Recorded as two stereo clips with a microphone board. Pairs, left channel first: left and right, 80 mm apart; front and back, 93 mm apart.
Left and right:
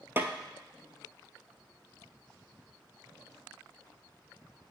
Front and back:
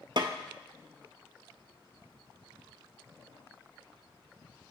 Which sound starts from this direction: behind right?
A snare drum, at 0.2 s.